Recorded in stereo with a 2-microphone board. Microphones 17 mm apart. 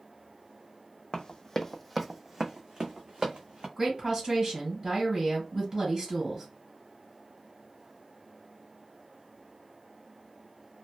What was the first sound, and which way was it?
Running footsteps, 55° left (ahead or behind).